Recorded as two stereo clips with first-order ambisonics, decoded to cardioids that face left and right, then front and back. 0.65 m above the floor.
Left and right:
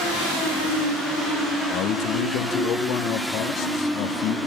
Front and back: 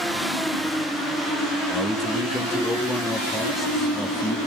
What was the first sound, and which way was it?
A man speaking, 80° left.